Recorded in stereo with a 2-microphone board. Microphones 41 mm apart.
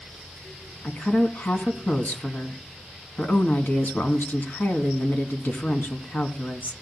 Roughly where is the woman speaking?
Left.